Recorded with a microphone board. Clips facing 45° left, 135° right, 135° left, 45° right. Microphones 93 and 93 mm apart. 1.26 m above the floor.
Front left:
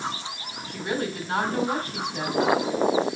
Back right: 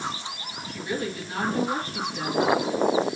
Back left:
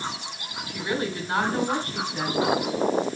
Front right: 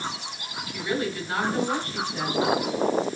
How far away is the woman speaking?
About 4 m.